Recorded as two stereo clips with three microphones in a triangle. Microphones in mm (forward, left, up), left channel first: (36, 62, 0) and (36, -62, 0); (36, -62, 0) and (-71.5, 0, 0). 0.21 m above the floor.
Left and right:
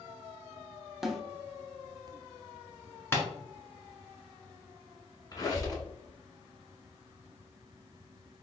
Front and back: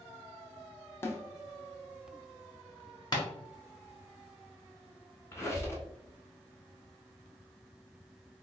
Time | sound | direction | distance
1.0 | a snare drum | 5° right | 0.6 m
3.1 | tapping | 20° left | 1.2 m
5.3 | a squeak | 35° left | 1.1 m